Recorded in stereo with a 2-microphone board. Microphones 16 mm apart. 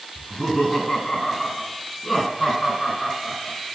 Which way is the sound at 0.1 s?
50° left (ahead or behind).